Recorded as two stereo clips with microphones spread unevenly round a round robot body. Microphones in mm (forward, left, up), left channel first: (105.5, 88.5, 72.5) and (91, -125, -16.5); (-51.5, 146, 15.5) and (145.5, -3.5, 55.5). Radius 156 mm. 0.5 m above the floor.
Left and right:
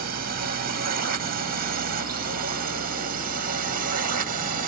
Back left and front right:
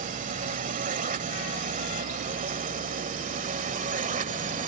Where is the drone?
100° right.